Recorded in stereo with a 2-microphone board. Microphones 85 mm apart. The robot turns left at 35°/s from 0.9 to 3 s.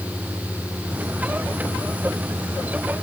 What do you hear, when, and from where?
Only background noise.